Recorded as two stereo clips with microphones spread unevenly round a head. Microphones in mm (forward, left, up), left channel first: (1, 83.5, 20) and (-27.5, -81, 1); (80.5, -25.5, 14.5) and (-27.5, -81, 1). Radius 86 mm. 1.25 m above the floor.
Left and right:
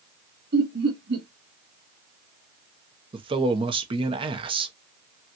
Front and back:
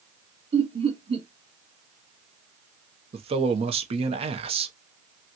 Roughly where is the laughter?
Behind right.